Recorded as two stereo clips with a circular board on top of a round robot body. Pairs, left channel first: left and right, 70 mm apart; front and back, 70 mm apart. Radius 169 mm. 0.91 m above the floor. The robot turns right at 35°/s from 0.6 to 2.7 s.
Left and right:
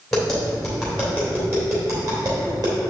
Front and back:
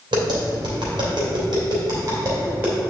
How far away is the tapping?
About 3 m.